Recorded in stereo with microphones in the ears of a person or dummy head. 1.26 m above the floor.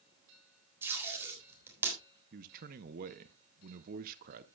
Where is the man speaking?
50° right (ahead or behind), 0.6 m.